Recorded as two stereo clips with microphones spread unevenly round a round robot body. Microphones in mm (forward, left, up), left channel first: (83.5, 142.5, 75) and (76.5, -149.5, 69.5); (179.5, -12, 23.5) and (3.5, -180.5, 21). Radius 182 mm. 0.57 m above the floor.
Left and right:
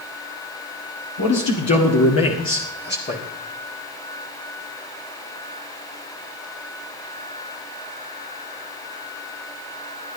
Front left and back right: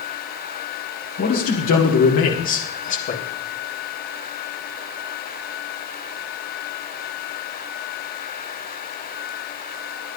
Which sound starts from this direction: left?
A man speaking, at 1.2 s.